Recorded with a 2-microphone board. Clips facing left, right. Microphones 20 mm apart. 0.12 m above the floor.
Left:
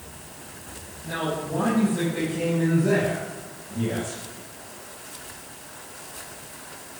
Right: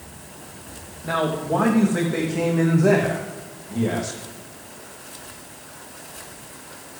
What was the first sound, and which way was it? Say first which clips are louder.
A man speaking: right 5 dB; 80° right.